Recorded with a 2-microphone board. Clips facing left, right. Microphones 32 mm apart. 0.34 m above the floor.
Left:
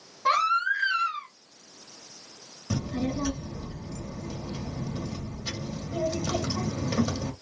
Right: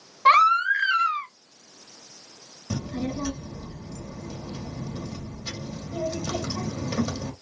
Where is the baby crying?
60° right (ahead or behind), 0.9 m.